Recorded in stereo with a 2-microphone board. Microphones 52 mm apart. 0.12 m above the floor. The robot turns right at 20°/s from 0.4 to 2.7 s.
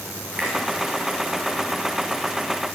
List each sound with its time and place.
0.4 s a finger snap: 25° right (ahead or behind), 9.5 m